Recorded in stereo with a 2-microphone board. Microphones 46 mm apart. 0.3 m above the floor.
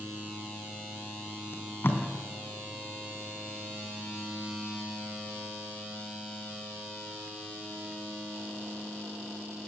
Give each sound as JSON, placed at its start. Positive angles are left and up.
{"t": 1.5, "sound": "tape being pulled", "side_deg": 55, "distance_m": 3.5}